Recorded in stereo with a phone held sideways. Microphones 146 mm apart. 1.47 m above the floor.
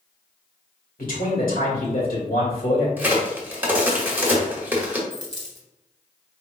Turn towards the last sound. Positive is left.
turn(degrees=-25)  # may be behind; listen again after turning